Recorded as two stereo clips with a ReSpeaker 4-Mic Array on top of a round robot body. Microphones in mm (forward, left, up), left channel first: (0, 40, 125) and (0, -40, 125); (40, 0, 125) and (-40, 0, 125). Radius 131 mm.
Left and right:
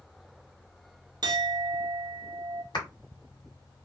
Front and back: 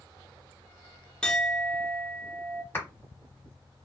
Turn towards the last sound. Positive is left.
turn(degrees=60)